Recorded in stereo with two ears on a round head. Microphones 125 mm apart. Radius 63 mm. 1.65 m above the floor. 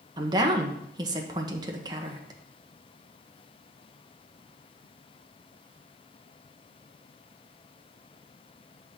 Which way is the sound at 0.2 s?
30° right (ahead or behind).